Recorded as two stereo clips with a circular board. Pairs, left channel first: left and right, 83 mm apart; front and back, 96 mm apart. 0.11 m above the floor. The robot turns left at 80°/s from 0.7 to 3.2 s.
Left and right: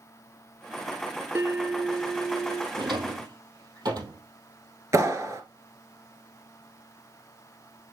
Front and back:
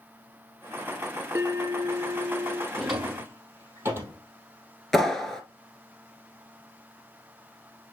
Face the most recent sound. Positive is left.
turn(degrees=-85)